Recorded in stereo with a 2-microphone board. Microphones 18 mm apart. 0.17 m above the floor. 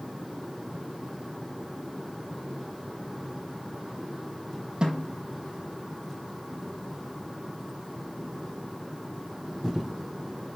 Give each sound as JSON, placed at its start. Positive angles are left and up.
{"t": 4.8, "sound": "a snare drum", "side_deg": -50, "distance_m": 5.0}